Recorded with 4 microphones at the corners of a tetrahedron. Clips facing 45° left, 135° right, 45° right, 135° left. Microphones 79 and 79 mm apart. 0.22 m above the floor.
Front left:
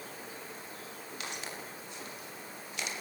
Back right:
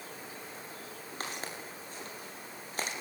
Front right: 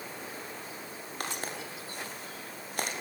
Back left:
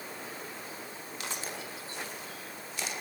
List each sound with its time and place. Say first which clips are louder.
1.2 s footsteps: back right 2 dB, front right 3 dB; 85° right, 9 m